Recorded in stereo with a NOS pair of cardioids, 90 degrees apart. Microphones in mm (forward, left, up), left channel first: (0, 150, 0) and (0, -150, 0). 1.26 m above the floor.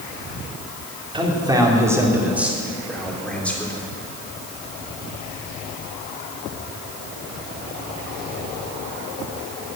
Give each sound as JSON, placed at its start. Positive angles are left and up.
{"t": 1.1, "sound": "a man speaking", "azimuth_deg": -15, "distance_m": 3.5}